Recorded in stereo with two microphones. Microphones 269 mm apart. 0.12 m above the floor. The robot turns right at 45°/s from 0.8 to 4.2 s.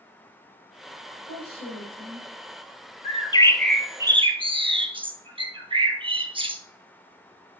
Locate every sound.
1.1 s a woman speaking: 110° left, 5 m; by 2.2 s 160° left, 5 m
3.0 s a bird: 150° left, 1.0 m; by 6.6 s 160° right, 1.0 m